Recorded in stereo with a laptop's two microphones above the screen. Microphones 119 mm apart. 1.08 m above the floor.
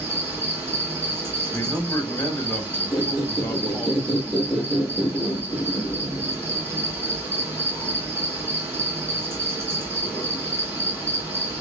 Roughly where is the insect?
Centre.